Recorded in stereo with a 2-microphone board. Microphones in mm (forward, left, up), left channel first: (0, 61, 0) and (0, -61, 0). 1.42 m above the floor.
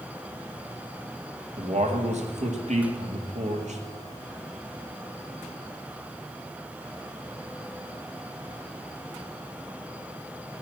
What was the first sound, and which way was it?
A man speaking, 70° right (ahead or behind).